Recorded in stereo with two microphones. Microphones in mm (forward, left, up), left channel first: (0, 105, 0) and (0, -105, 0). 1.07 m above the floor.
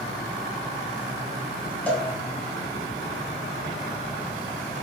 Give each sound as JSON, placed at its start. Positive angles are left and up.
{"t": 1.9, "sound": "a cowbell", "side_deg": 5, "distance_m": 0.7}